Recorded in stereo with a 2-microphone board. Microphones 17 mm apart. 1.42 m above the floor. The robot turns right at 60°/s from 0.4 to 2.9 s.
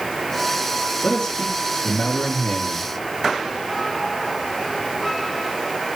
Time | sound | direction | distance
1.0 | a man speaking | 30° left | 3.5 m